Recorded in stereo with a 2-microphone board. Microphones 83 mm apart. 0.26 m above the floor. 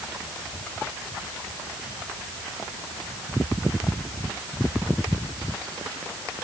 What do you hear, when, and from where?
Only background noise.